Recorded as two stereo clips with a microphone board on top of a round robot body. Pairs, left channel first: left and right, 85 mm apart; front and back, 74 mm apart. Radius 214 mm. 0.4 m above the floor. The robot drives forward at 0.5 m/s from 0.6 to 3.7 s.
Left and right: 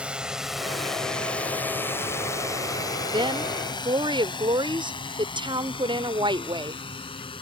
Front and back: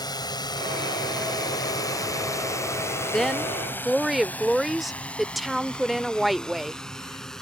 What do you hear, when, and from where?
0.0 s a drone: 15° right; by 7.4 s 85° left
3.1 s a woman speaking: 80° right; by 6.8 s 90° right